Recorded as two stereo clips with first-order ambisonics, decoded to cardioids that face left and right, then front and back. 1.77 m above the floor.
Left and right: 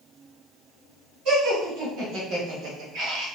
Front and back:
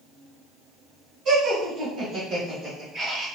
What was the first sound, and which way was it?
Laughter, 130° right.